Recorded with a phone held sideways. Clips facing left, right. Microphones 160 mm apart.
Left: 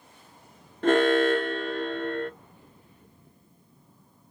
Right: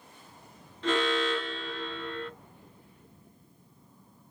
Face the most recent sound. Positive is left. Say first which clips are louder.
# left 8 dB
turn(degrees=55)  # may be behind; listen again after turning